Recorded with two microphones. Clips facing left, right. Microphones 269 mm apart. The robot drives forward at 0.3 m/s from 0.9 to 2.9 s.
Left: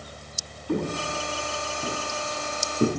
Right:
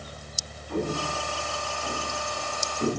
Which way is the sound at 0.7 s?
65° left (ahead or behind).